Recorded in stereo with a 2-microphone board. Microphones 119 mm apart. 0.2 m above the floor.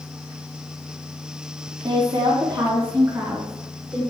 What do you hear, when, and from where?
1.8 s a woman speaking: 40° right (ahead or behind), 1.9 m; by 4.0 s 15° right (ahead or behind), 2.5 m